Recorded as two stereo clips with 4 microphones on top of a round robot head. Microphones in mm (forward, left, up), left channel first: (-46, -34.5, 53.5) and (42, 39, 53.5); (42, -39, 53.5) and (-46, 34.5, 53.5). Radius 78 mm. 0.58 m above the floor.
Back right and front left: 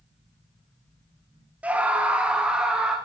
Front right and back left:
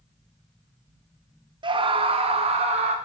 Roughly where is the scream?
Behind left.